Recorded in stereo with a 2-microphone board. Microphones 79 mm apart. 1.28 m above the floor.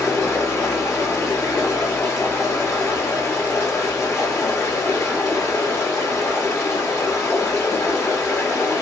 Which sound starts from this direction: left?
Running water, at 0.0 s.